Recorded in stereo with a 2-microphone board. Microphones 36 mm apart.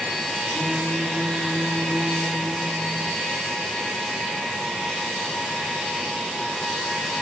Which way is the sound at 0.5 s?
65° right (ahead or behind).